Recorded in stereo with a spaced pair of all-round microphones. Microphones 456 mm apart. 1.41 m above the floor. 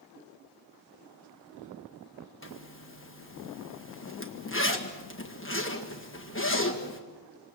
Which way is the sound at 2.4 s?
25° left (ahead or behind).